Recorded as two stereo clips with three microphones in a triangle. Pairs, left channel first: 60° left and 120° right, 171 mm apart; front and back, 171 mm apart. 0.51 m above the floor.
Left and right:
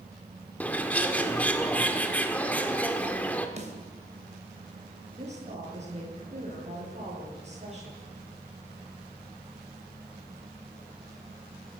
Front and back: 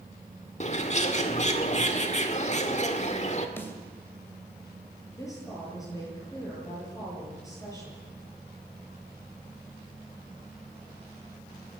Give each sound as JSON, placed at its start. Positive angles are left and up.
{"t": 0.6, "sound": "a bird", "azimuth_deg": -20, "distance_m": 1.8}
{"t": 3.6, "sound": "a snare drum", "azimuth_deg": -75, "distance_m": 3.0}
{"t": 5.1, "sound": "a woman speaking", "azimuth_deg": -70, "distance_m": 10.0}